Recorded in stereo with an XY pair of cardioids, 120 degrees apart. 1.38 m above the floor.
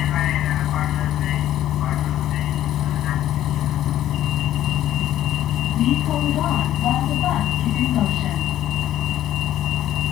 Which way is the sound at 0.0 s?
65° left.